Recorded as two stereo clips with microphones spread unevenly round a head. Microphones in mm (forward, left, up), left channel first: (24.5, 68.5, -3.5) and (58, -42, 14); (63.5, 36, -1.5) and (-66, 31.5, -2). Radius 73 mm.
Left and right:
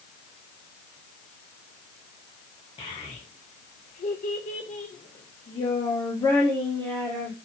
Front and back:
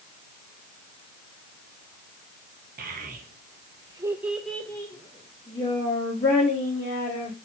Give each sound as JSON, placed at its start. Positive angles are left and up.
{"t": 2.8, "sound": "a child speaking", "azimuth_deg": 165, "distance_m": 0.9}